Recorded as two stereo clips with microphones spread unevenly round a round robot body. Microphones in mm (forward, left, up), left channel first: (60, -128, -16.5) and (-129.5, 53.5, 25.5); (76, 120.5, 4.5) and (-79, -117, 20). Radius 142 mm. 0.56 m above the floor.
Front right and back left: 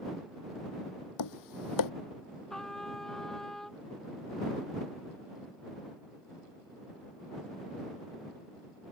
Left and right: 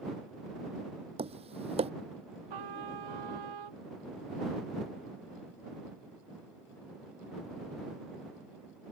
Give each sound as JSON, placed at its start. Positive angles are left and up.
{"t": 1.2, "sound": "tapping", "azimuth_deg": -50}
{"t": 2.5, "sound": "a trumpet", "azimuth_deg": -130}